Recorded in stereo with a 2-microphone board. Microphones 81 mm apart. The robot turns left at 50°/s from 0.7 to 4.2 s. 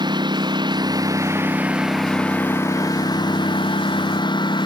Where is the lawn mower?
115° right; by 4.7 s 70° left.